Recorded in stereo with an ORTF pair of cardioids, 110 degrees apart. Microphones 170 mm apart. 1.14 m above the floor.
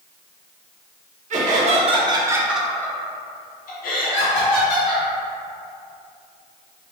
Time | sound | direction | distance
1.3 | laughter | 50° right | 1.0 m